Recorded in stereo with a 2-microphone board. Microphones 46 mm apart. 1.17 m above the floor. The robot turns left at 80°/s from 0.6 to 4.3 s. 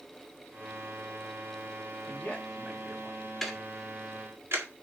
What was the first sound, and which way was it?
A man speaking, 50° left.